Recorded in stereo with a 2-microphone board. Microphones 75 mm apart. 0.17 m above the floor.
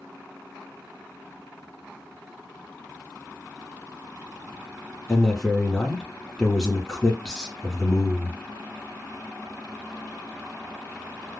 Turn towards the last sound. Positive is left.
turn(degrees=10)  # may be behind; listen again after turning